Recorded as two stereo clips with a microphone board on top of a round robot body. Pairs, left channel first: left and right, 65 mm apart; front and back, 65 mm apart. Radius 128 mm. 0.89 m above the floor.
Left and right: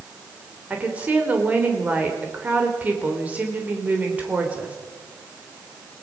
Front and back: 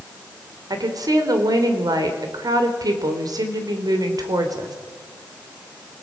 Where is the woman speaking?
155° right, 3.5 m.